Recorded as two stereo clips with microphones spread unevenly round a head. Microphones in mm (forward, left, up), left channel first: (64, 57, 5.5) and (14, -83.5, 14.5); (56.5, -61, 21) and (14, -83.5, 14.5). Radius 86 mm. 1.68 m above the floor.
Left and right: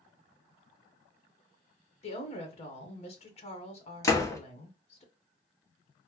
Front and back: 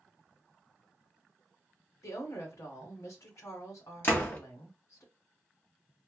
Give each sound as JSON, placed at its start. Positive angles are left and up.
{"t": 2.0, "sound": "a woman speaking", "azimuth_deg": 25, "distance_m": 1.8}
{"t": 4.0, "sound": "a door slam", "azimuth_deg": 5, "distance_m": 1.5}